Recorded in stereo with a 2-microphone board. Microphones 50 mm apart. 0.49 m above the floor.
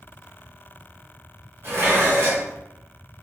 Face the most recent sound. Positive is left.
turn(degrees=-50)  # may be behind; listen again after turning